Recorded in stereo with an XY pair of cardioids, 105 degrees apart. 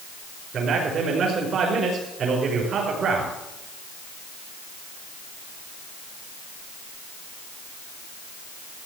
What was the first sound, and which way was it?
A man speaking, 55° right.